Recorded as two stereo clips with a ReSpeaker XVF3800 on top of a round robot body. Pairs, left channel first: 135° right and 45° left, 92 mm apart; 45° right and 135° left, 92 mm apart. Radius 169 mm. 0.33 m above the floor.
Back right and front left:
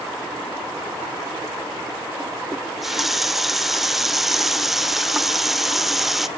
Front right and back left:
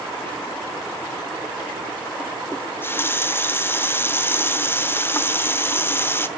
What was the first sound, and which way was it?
A running tap, 40° right.